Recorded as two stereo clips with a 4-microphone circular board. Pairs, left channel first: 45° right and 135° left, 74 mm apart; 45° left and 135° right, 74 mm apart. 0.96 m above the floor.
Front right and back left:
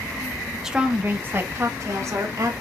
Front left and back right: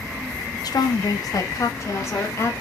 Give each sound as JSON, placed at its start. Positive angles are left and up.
{"t": 0.6, "sound": "a woman speaking", "azimuth_deg": 50, "distance_m": 0.6}